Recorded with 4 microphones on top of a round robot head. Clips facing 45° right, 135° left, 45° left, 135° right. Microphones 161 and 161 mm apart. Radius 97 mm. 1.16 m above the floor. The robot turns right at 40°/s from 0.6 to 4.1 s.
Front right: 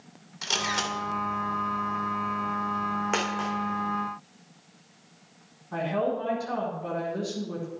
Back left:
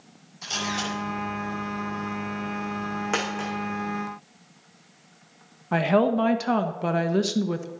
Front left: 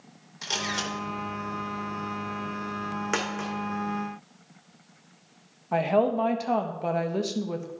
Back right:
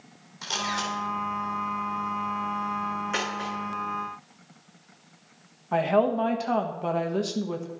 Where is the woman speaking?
130° left, 1.3 m.